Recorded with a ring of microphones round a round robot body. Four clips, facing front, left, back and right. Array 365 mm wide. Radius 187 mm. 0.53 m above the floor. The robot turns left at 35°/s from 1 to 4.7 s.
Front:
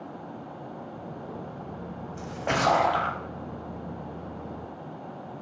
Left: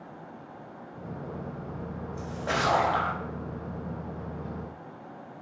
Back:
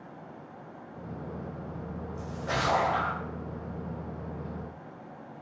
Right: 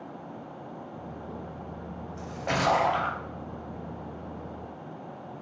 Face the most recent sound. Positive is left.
turn(degrees=-85)